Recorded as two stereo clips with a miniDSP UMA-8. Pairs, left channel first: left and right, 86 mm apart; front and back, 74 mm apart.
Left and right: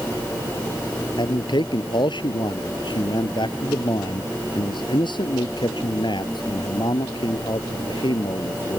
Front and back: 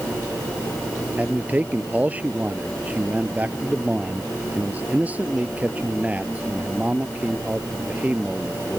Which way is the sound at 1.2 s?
110° left.